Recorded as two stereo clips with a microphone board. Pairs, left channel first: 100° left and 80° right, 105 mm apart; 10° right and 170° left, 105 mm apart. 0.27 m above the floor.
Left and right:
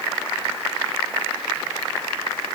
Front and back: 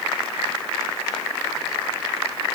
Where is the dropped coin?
No dropped coin in this recording.